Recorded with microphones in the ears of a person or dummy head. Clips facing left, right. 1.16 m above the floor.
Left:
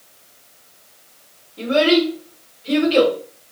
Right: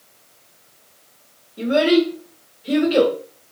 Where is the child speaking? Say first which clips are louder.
Even; 20° right (ahead or behind), 0.7 m.